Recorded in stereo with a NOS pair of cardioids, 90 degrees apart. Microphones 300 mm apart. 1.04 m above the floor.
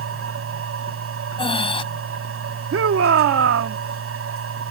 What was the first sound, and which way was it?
A machine running, 50° right.